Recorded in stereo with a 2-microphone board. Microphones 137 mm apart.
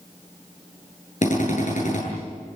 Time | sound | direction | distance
1.2 | a drill | 65° left (ahead or behind) | 8.5 m